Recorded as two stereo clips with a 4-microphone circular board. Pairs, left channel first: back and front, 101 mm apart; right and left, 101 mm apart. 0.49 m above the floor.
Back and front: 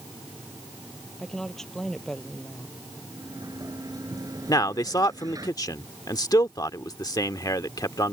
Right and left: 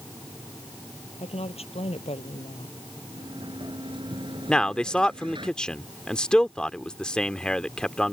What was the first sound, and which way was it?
A woman speaking, 95° right.